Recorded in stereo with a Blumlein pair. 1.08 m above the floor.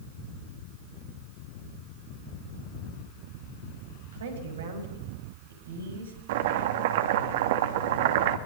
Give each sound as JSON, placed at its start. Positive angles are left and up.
{"t": 4.1, "sound": "a woman speaking", "azimuth_deg": -65, "distance_m": 8.0}
{"t": 6.3, "sound": "chopping", "azimuth_deg": -55, "distance_m": 2.5}